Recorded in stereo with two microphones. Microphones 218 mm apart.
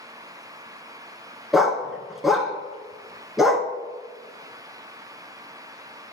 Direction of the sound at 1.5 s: Centre (ahead or behind).